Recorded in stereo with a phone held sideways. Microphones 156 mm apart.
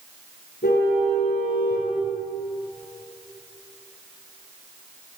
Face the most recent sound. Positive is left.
turn(degrees=75)  # may be behind; listen again after turning